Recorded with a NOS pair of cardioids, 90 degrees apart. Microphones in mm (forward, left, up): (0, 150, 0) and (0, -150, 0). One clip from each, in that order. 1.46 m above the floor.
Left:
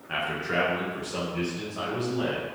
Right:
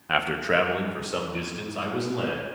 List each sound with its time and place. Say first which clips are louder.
0.1 s a man speaking: right 5 dB; 50° right, 1.0 m; by 2.5 s 55° right, 4 m